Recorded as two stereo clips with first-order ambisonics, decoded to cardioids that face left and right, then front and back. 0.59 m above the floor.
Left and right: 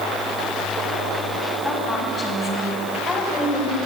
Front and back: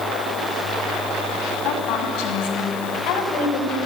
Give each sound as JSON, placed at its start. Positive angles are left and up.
{"t": 1.6, "sound": "a woman speaking", "azimuth_deg": 10, "distance_m": 4.5}